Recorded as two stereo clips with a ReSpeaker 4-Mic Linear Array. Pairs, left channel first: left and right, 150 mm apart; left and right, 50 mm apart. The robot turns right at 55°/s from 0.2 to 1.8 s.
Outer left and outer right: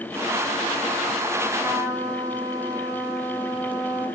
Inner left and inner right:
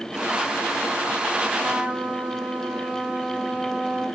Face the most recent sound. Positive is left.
turn(degrees=-20)  # may be behind; listen again after turning